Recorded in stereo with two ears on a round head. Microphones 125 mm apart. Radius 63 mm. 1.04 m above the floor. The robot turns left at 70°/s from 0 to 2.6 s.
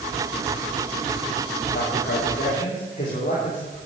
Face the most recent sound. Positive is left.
turn(degrees=50)